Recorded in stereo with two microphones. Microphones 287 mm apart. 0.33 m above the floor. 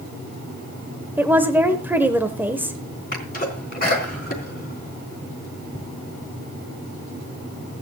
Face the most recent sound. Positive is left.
turn(degrees=30)  # may be behind; listen again after turning